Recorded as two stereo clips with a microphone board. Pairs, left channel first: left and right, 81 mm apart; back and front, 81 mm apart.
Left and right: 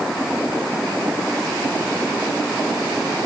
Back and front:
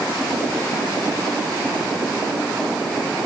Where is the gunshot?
I don't hear a gunshot.